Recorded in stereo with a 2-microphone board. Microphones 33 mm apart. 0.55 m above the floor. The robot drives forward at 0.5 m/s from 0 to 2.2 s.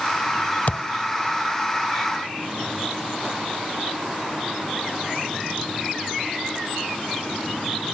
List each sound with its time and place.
0.7 s a thud: 55° left (ahead or behind), 0.5 m; by 0.9 s 45° left (ahead or behind), 0.6 m